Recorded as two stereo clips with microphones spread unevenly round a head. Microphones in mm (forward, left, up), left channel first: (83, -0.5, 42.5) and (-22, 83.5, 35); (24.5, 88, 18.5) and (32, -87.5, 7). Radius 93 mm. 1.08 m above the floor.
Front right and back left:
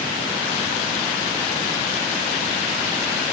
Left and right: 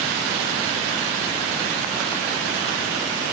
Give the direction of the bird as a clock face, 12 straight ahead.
No bird in this recording.